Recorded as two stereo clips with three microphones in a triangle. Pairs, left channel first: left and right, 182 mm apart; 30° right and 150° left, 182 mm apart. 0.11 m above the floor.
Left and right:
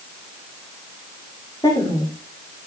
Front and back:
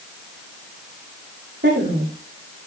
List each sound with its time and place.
1.6 s a woman speaking: 155° left, 8 m